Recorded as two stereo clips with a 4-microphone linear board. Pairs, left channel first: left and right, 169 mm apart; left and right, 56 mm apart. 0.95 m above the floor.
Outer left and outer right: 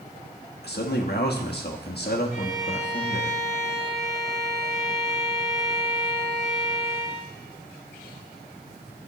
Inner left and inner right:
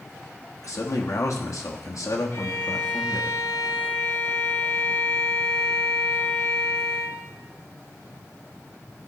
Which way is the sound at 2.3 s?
50° left (ahead or behind).